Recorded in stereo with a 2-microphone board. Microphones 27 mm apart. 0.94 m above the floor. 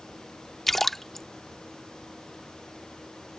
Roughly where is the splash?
Centre.